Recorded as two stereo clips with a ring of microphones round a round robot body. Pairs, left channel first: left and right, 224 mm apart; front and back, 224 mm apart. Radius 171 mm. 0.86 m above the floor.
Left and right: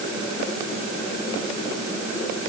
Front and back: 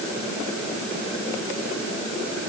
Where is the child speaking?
I don't hear a child speaking.